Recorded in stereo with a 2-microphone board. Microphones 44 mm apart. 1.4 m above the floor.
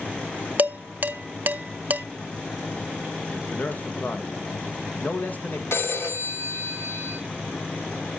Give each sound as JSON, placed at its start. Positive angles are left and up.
{"t": 0.6, "sound": "dishes clattering", "side_deg": -45, "distance_m": 0.6}
{"t": 3.5, "sound": "a man speaking", "side_deg": 45, "distance_m": 1.7}
{"t": 5.7, "sound": "a phone ringing", "side_deg": 75, "distance_m": 2.5}